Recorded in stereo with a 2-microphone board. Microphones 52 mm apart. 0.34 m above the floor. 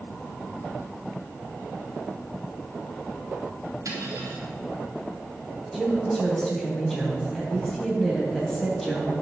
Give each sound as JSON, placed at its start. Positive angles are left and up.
{"t": 3.9, "sound": "cutlery clinking", "side_deg": -75, "distance_m": 3.0}
{"t": 5.7, "sound": "a woman speaking", "side_deg": 10, "distance_m": 2.5}